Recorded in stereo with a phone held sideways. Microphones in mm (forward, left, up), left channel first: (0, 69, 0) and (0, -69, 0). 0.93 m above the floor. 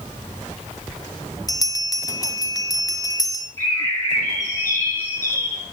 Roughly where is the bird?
Left.